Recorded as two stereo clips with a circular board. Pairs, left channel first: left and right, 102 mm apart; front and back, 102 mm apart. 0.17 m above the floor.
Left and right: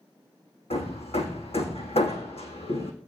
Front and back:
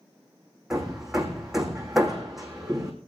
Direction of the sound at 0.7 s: 95° left.